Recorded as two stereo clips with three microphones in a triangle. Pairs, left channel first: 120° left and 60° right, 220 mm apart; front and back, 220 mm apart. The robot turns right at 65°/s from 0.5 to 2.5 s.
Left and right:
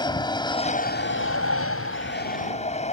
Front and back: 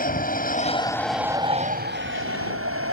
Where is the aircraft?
50° left; by 2.9 s straight behind.